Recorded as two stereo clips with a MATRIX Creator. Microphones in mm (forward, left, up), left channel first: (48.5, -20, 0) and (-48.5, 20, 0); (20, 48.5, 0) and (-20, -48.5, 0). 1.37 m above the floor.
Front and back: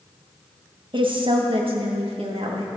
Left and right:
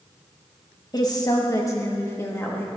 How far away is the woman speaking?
About 1.5 m.